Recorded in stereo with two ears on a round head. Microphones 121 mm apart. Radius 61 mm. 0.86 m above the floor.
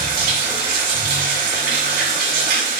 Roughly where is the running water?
Right.